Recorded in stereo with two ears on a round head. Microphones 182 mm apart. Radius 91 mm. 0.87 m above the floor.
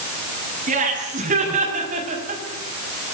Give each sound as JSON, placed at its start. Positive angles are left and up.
{"t": 0.7, "sound": "laughter", "side_deg": -40, "distance_m": 7.0}